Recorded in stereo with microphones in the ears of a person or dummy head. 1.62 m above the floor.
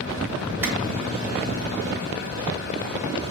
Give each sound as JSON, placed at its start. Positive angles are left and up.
{"t": 0.6, "sound": "a clap", "side_deg": -15, "distance_m": 2.5}